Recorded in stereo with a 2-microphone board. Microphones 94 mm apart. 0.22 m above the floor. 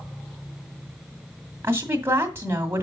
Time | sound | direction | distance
1.6 | a woman speaking | 25° right (ahead or behind) | 1.8 m